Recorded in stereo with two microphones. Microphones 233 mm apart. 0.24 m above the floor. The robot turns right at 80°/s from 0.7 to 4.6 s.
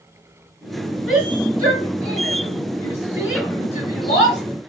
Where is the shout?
5° left (ahead or behind), 3 m; by 4.4 s 70° left (ahead or behind), 3 m.